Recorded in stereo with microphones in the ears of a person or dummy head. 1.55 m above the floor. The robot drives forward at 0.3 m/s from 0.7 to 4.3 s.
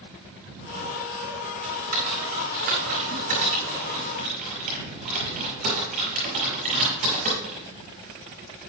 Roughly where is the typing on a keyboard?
Right.